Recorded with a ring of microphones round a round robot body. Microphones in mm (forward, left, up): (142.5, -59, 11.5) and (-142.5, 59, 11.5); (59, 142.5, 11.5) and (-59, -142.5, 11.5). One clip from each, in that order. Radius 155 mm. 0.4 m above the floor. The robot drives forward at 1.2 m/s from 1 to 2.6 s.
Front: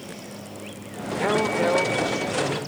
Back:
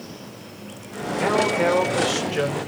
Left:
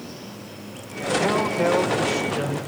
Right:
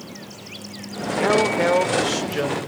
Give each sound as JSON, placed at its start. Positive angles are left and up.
{"t": 1.2, "sound": "a man speaking", "azimuth_deg": -90, "distance_m": 1.2}